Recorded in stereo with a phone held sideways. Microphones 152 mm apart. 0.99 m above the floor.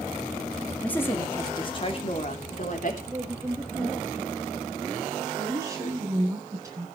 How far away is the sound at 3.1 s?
About 1.5 m.